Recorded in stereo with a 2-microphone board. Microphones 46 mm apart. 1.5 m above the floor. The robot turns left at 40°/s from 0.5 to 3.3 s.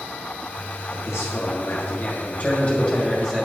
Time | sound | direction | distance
0.9 | a man speaking | 85° left | 2 m